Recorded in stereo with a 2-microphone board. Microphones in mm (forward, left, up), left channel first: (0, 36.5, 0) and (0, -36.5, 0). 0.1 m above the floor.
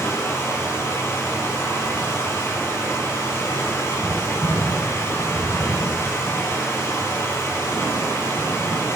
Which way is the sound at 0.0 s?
35° left (ahead or behind).